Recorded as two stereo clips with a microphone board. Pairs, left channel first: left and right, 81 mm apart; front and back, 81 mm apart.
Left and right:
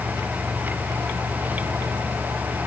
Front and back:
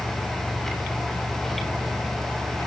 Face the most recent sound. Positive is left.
No sound to turn to.